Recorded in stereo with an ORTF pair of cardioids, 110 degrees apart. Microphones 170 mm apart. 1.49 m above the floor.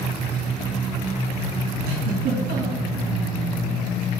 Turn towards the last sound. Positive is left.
turn(degrees=-70)